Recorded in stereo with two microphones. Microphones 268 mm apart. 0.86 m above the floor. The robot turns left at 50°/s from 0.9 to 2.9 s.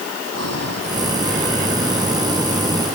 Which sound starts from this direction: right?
Breathing, at 0.3 s.